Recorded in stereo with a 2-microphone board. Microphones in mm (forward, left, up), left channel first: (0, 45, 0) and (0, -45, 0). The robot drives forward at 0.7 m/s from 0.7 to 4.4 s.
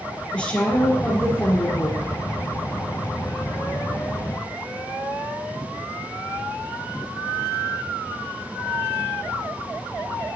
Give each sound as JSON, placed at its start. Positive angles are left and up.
{"t": 0.3, "sound": "a woman speaking", "side_deg": 15, "distance_m": 3.0}